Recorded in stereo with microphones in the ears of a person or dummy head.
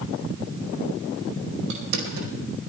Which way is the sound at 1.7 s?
85° right.